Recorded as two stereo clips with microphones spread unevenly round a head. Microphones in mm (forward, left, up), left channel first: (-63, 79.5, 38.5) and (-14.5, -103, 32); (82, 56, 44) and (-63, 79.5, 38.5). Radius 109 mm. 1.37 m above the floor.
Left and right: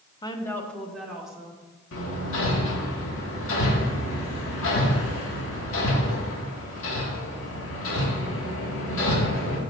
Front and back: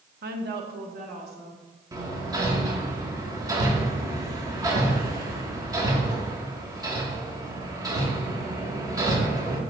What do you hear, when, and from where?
0.2 s a woman speaking: 170° left, 1.1 m; by 1.6 s 160° right, 3 m
1.9 s hammering: 105° left, 2.0 m